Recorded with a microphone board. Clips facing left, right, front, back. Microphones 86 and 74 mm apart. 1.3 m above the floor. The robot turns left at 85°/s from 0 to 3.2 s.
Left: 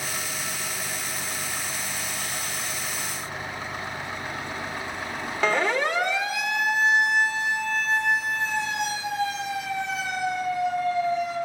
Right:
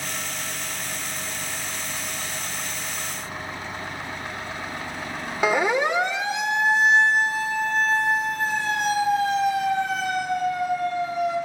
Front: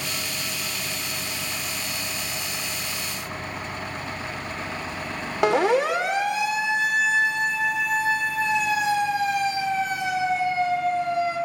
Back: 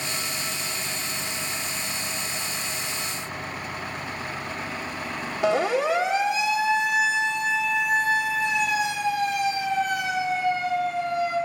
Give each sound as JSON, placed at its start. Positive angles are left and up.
{"t": 5.4, "sound": "a siren", "azimuth_deg": -10, "distance_m": 3.0}